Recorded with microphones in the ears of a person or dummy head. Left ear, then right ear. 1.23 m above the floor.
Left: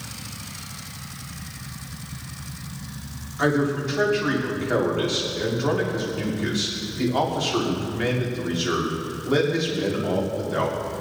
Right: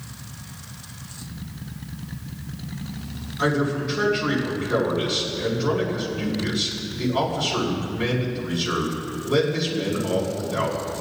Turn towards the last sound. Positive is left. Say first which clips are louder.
# left 1 dB
turn(degrees=35)  # may be behind; listen again after turning